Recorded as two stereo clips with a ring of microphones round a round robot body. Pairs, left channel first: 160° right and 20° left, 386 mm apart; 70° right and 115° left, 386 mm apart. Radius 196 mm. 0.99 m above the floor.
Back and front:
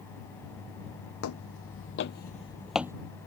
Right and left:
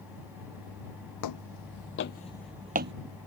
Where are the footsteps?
105° right; by 2.9 s 95° left.